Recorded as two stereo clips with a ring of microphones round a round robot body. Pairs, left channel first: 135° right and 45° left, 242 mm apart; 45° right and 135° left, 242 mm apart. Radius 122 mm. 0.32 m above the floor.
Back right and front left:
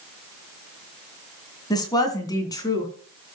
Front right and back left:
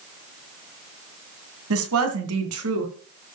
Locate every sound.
1.7 s a woman speaking: 150° left, 2 m